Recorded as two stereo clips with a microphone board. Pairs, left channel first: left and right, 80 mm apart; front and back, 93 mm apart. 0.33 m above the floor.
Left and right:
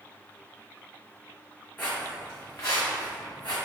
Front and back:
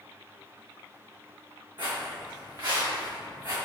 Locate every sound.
1.8 s footsteps: 150° left, 1.7 m; by 3.6 s 125° left, 2 m